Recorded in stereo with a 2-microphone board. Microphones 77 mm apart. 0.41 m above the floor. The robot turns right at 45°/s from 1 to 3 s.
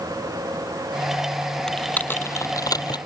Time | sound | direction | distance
1.7 | typing on a keyboard | 10° left (ahead or behind) | ?